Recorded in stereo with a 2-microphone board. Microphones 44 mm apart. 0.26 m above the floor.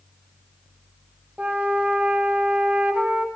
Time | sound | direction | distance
1.4 | a flute | 30° right (ahead or behind) | 1.3 m